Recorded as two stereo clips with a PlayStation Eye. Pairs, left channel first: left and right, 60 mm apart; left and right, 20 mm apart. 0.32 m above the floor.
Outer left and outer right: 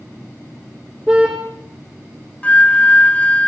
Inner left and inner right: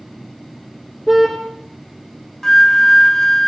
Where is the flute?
25° left (ahead or behind), 0.7 m.